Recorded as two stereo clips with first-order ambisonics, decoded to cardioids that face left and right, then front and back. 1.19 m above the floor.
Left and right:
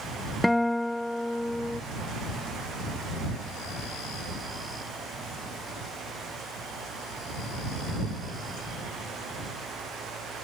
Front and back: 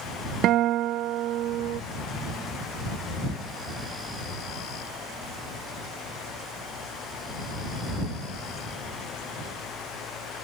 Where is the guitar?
175° left.